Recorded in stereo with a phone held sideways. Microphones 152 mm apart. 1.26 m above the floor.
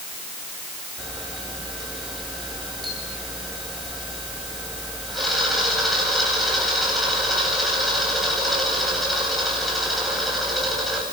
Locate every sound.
1.0 s a camera shutter: centre (ahead or behind), 9 m